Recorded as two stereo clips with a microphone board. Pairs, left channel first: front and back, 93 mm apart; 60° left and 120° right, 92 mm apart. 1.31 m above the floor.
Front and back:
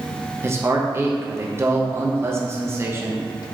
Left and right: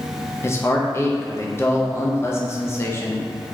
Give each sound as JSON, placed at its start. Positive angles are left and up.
{"t": 0.4, "sound": "a man speaking", "azimuth_deg": 120, "distance_m": 0.5}